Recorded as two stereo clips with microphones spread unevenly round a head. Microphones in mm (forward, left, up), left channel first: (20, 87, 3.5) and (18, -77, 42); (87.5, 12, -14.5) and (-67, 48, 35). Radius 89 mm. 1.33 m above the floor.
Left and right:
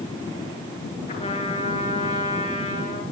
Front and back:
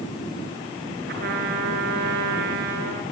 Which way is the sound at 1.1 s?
145° left.